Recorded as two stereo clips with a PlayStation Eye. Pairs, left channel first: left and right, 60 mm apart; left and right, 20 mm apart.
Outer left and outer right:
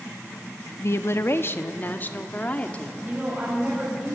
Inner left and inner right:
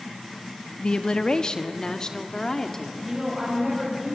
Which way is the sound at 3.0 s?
30° right (ahead or behind).